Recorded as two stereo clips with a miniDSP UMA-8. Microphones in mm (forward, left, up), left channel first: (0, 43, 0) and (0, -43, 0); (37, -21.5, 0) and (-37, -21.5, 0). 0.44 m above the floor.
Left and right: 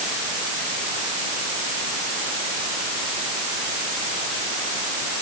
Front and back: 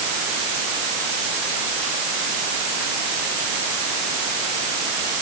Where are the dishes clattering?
I don't hear dishes clattering.